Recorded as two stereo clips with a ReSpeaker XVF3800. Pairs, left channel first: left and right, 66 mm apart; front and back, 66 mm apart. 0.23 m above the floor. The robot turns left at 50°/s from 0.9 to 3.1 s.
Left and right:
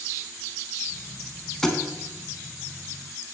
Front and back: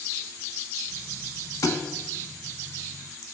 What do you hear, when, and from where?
1.6 s a thud: 10° left, 0.9 m; by 1.8 s straight ahead, 0.9 m